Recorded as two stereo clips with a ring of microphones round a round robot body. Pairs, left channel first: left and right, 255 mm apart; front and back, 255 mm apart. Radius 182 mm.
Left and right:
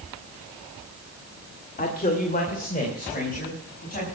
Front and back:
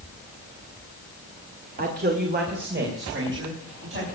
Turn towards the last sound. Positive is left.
turn(degrees=145)